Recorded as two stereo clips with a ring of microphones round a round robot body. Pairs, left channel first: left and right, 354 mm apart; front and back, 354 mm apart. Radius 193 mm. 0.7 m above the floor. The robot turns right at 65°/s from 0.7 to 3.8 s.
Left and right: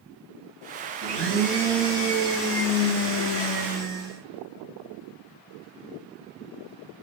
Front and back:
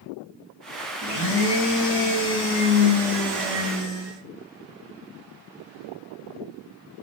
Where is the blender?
45° right, 6 m; by 4.2 s 135° left, 6 m.